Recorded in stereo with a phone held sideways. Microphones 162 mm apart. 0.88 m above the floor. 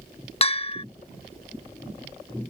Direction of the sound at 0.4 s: 35° left (ahead or behind).